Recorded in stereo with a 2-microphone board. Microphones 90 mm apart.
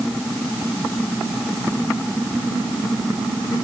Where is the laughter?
No laughter in this recording.